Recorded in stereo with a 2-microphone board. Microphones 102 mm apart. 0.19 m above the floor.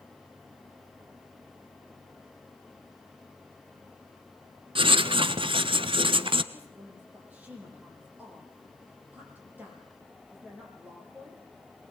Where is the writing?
55° right (ahead or behind), 1.0 m.